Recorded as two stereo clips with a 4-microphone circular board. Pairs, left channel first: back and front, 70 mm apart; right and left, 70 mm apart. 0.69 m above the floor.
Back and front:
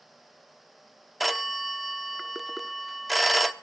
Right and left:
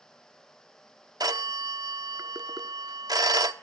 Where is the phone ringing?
90° left, 0.9 m.